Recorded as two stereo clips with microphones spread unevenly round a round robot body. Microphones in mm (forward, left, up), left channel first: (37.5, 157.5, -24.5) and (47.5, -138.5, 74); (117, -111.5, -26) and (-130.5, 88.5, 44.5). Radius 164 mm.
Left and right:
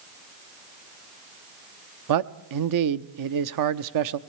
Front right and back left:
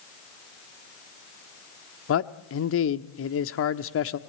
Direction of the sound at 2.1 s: 65° right.